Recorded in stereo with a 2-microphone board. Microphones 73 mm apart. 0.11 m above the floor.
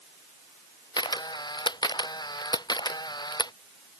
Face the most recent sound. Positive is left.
turn(degrees=85)